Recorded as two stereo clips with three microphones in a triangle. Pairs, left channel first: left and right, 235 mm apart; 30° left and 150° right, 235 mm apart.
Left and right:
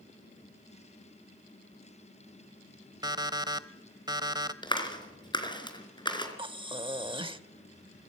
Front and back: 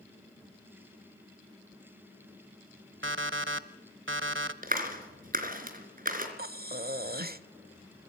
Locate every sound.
3.0 s an alarm clock: 160° right, 1.0 m
4.6 s a clap: 160° left, 3.5 m
6.4 s breathing: 150° right, 1.0 m